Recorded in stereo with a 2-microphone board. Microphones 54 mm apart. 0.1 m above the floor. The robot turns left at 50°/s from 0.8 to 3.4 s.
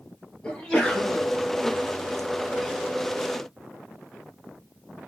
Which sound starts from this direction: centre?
A sneeze, at 0.4 s.